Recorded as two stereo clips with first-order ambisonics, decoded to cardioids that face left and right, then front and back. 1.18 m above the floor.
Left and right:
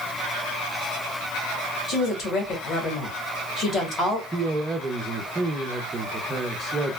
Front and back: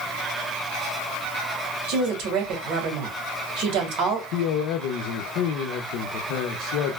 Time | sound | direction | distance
1.9 | a woman speaking | 150° left | 1.8 m
4.3 | a man speaking | 15° right | 0.6 m